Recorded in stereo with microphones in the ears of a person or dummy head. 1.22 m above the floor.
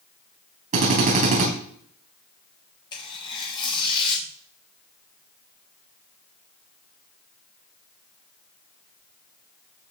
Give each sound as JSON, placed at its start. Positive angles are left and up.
{"t": 0.7, "sound": "a drill", "side_deg": -40, "distance_m": 3.5}
{"t": 2.9, "sound": "tearing paper", "side_deg": 25, "distance_m": 3.0}